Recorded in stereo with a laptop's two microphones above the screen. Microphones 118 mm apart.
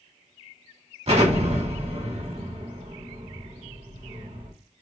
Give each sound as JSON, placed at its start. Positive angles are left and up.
{"t": 1.1, "sound": "an explosion", "side_deg": -60, "distance_m": 2.0}